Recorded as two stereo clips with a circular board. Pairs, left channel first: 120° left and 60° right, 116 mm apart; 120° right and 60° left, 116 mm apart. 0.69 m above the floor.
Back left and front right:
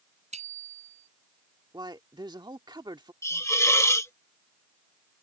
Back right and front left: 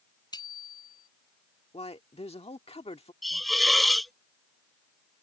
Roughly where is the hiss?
Behind left.